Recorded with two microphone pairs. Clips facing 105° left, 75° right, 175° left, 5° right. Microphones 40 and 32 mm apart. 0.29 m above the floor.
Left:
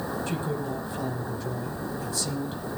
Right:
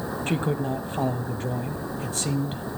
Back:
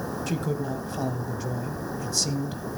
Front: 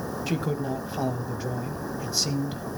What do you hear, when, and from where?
0.3 s a man speaking: 75° right, 1.3 m